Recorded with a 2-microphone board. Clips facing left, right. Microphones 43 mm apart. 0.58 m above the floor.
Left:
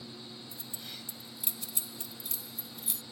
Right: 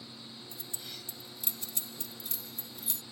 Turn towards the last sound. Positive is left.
turn(degrees=5)  # may be behind; listen again after turning